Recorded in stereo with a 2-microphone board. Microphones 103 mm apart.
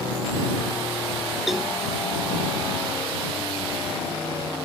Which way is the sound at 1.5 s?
Centre (ahead or behind).